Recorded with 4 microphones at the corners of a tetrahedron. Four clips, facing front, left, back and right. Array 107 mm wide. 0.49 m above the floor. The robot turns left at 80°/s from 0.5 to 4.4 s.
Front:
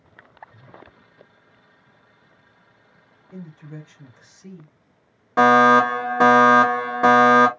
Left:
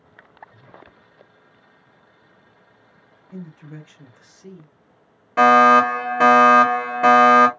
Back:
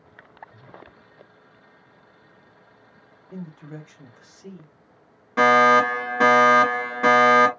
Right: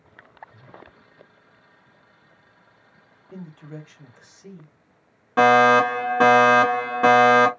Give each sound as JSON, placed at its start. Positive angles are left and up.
{"t": 3.3, "sound": "a man speaking", "azimuth_deg": -145, "distance_m": 1.2}
{"t": 5.4, "sound": "a fire alarm", "azimuth_deg": -25, "distance_m": 2.0}